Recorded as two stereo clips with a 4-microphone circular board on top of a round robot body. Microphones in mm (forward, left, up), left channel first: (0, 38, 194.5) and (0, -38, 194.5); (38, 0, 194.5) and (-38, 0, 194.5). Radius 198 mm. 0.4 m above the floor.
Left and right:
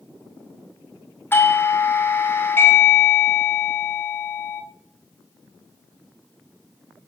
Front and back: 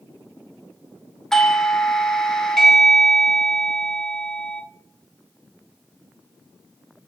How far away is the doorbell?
About 1.2 m.